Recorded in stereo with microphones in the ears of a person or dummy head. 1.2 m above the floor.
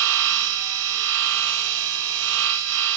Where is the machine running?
75° right (ahead or behind), 0.9 m.